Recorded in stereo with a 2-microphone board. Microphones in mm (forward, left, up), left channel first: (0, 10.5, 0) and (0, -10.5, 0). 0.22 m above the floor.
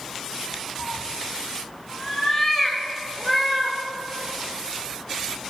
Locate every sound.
0.8 s a cat meowing: 50° left (ahead or behind), 0.5 m; by 3.8 s 15° left (ahead or behind), 1.6 m